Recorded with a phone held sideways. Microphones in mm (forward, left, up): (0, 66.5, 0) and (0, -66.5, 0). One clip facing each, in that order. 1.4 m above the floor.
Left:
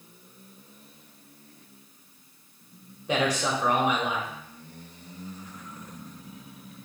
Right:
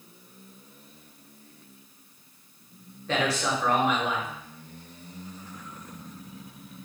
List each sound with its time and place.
3.1 s a man speaking: 15° left (ahead or behind), 0.9 m